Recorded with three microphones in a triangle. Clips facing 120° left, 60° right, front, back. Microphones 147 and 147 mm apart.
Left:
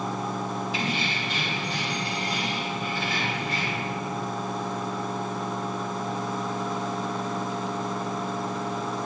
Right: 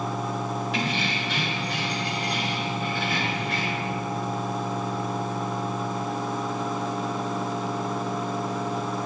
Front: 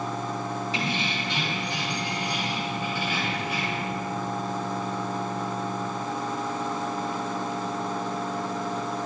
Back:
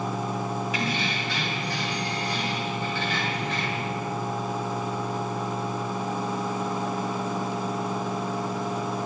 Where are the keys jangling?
60° right, 3 m; by 3.9 s 80° right, 5 m.